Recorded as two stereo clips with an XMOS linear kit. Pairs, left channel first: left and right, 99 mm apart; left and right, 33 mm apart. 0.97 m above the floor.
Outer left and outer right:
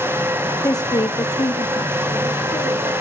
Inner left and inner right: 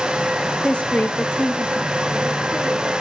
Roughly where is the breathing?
I don't hear breathing.